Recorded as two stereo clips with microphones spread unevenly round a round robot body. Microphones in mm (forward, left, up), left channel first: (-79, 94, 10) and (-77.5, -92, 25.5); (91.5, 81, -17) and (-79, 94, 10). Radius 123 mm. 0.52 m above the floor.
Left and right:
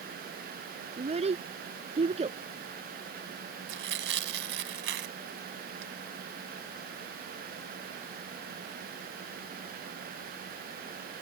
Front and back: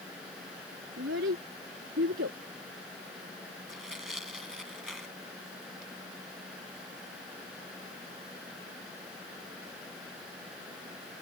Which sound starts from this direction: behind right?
A child speaking, at 1.0 s.